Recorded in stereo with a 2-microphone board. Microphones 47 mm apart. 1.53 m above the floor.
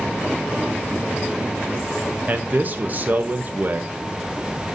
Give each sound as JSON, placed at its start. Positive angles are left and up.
{"t": 2.3, "sound": "a man speaking", "side_deg": -40, "distance_m": 0.7}